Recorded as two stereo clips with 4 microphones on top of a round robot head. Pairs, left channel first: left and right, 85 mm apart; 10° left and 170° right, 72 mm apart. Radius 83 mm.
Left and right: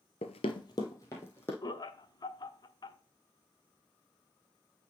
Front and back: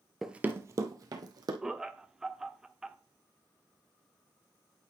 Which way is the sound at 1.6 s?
110° left.